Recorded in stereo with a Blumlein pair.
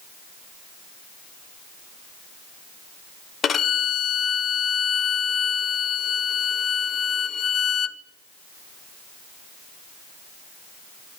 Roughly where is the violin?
Ahead.